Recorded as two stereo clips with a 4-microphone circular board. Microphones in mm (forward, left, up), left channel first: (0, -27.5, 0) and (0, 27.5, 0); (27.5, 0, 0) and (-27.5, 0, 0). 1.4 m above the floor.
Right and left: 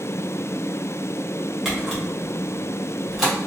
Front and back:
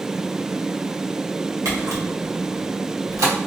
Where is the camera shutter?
175° left, 1.1 m.